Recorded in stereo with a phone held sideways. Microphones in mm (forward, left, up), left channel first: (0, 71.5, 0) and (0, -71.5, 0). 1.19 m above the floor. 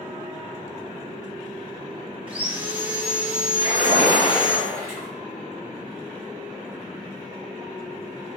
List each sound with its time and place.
2.3 s sawing: 10° right (ahead or behind), 0.9 m
3.6 s a splash: 50° left (ahead or behind), 2.5 m